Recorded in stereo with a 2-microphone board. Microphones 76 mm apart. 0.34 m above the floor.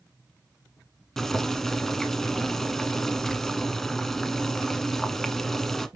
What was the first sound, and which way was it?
Boiling, 5° left (ahead or behind).